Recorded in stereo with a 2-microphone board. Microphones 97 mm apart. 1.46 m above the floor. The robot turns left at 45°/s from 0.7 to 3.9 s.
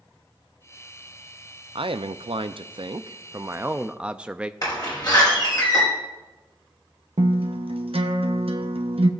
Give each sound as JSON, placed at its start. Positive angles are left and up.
{"t": 1.8, "sound": "a man speaking", "azimuth_deg": -70, "distance_m": 0.5}
{"t": 4.6, "sound": "a door slam", "side_deg": 45, "distance_m": 5.0}
{"t": 7.2, "sound": "a guitar", "side_deg": -75, "distance_m": 0.8}